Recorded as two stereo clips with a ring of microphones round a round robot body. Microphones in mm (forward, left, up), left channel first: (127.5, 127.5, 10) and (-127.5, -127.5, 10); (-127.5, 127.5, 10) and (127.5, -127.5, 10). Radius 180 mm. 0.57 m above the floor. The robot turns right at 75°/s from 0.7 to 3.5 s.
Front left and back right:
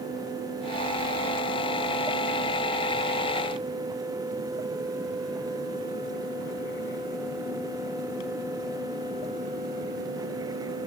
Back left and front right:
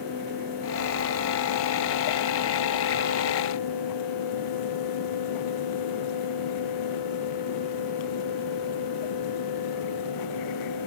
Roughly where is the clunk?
I don't hear a clunk.